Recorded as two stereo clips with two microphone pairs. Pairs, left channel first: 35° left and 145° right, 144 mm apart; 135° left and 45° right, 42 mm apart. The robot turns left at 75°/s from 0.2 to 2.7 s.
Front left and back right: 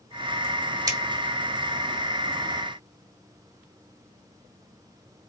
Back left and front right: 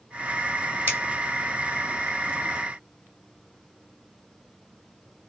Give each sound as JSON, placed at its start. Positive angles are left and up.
{"t": 0.9, "sound": "scissors", "azimuth_deg": -80, "distance_m": 1.0}